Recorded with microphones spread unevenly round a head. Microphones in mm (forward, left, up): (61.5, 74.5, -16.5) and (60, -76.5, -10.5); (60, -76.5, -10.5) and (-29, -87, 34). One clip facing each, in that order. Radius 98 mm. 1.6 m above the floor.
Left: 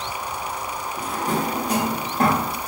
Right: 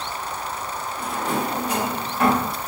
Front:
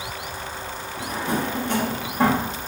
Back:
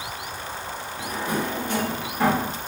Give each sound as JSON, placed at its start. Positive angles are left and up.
{"t": 1.0, "sound": "a drawer", "azimuth_deg": 80, "distance_m": 1.1}